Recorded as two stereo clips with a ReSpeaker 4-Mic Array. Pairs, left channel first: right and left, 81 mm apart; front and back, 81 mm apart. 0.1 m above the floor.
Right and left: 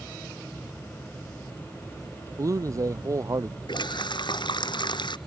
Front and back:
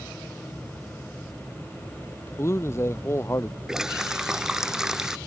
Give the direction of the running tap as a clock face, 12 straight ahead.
3 o'clock.